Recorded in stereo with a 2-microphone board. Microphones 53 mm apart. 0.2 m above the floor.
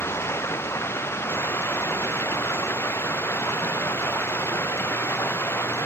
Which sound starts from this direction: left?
Running water, at 0.0 s.